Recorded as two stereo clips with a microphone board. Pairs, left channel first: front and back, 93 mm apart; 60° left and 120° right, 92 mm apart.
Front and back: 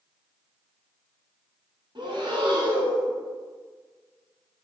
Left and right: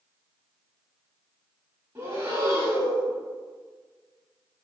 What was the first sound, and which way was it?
Breathing, 175° right.